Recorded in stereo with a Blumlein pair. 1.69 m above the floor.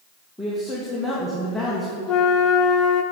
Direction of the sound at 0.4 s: 5° right.